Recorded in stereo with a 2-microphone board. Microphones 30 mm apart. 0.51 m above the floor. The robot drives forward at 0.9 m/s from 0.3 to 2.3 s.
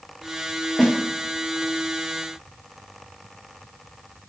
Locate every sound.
0.8 s a snare drum: 15° left (ahead or behind), 1.4 m